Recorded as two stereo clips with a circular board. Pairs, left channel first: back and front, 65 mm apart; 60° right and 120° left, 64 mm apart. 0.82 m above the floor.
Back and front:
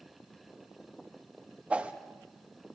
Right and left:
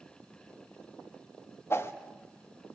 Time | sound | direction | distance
1.7 | a whoosh | 60° right | 1.0 m